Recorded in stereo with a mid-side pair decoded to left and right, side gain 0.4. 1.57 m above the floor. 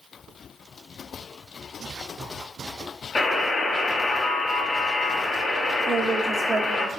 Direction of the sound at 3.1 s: 50° left.